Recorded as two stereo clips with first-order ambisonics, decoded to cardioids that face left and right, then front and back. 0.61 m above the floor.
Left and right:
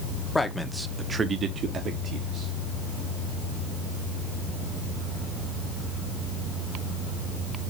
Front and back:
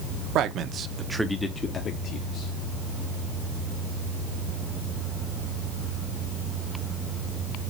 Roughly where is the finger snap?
I don't hear a finger snap.